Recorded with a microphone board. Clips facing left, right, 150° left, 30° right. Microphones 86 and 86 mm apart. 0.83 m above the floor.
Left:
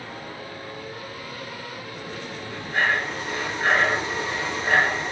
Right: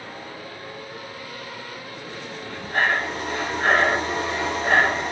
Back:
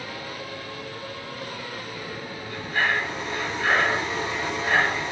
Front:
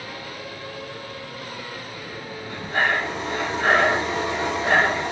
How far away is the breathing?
About 2.5 m.